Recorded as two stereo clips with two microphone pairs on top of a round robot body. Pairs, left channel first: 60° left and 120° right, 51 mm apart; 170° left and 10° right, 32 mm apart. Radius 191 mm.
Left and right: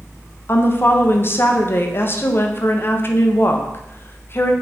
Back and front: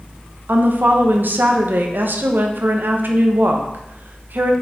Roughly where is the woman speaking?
Ahead.